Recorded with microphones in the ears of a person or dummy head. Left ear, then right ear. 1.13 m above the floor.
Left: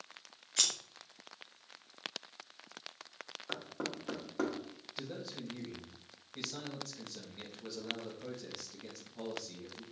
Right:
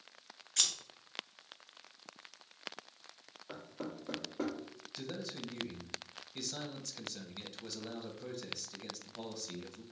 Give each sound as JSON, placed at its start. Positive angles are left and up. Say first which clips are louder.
{"t": 0.6, "sound": "scissors", "louder": "left 1 dB", "side_deg": -10, "distance_m": 0.6}
{"t": 3.5, "sound": "knocking", "louder": "left 4 dB", "side_deg": 70, "distance_m": 1.3}
{"t": 5.0, "sound": "a man speaking", "louder": "right 1 dB", "side_deg": -65, "distance_m": 1.0}